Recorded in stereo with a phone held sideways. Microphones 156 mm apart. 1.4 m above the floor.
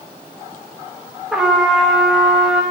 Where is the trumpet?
5° right (ahead or behind), 1.1 m.